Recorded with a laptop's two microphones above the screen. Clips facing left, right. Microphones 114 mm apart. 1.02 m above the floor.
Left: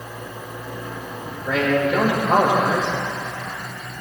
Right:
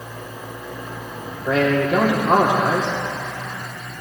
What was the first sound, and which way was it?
A man speaking, 45° right (ahead or behind).